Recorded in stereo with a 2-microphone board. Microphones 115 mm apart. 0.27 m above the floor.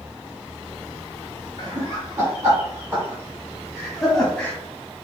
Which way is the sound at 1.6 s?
35° right (ahead or behind).